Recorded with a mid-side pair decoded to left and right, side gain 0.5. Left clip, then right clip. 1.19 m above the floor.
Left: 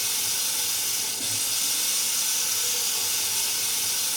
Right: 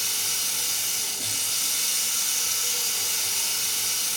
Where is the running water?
25° right, 5.5 m.